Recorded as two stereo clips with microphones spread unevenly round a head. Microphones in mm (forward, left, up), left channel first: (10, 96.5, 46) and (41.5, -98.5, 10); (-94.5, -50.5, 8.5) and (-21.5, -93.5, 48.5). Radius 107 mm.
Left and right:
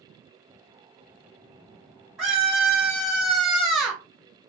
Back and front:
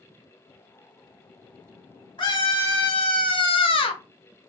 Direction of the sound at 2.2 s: 175° right.